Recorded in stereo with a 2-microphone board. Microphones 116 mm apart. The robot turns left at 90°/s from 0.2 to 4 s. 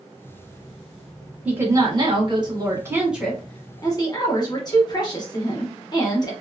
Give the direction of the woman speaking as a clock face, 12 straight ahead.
1 o'clock.